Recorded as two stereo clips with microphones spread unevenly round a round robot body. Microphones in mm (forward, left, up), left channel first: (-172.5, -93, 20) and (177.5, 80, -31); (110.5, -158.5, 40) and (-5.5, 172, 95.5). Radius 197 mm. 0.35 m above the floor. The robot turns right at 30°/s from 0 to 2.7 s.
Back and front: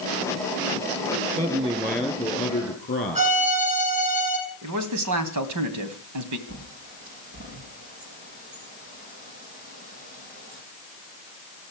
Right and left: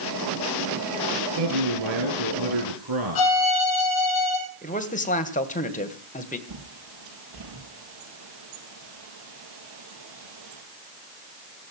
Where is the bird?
90° left, 7 m.